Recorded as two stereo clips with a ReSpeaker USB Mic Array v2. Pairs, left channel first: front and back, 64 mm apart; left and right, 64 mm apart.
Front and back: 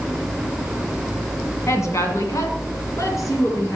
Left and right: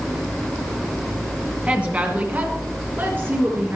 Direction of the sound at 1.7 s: 25° right.